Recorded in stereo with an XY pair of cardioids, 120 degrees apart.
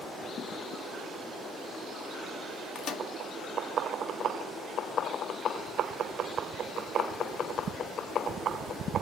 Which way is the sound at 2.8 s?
65° left.